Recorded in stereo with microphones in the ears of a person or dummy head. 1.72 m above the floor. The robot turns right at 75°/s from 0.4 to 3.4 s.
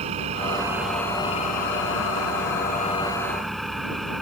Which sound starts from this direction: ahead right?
An engine running, at 0.0 s.